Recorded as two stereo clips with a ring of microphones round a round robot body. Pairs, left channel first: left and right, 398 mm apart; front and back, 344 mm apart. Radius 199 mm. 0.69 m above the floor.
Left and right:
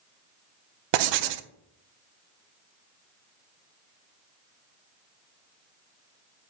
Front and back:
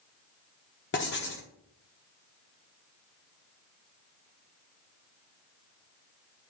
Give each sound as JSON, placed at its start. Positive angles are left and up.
{"t": 0.9, "sound": "writing", "azimuth_deg": -65, "distance_m": 0.6}